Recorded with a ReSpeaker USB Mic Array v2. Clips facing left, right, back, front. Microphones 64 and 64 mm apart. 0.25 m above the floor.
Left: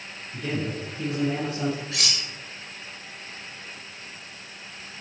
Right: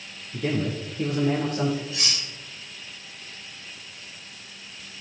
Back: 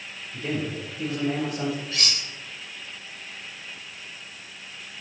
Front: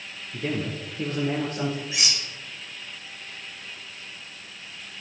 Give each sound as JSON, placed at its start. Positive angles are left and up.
{"t": 0.3, "sound": "a man speaking", "azimuth_deg": -50, "distance_m": 3.5}
{"t": 1.9, "sound": "cutlery clinking", "azimuth_deg": 75, "distance_m": 2.5}